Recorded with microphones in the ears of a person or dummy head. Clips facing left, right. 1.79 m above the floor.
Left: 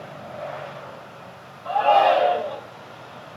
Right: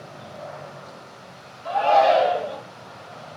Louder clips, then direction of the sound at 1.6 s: Even; 35° right (ahead or behind).